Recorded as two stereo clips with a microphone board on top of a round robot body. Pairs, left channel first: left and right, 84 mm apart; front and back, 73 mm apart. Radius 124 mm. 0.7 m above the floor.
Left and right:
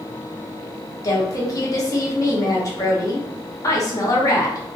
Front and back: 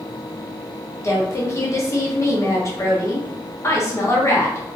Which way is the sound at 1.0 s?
45° left.